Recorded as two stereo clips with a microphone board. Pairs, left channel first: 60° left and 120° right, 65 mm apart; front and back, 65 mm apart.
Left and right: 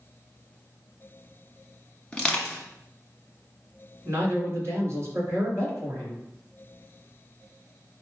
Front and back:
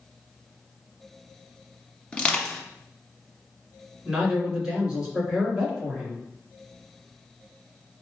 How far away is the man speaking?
About 2 m.